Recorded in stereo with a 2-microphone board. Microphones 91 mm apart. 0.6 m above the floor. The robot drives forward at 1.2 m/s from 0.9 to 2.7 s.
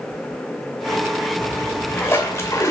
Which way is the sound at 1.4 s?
20° left (ahead or behind).